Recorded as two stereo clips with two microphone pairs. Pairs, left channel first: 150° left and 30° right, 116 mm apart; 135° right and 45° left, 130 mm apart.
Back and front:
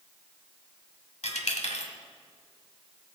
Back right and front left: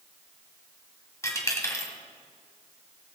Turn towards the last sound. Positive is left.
turn(degrees=160)